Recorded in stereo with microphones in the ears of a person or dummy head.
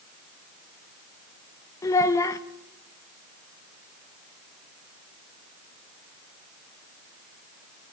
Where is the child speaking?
15° left (ahead or behind), 1.1 m.